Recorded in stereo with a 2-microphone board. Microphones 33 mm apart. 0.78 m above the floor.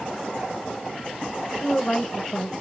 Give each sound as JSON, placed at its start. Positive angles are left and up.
{"t": 1.6, "sound": "a woman speaking", "side_deg": 20, "distance_m": 0.7}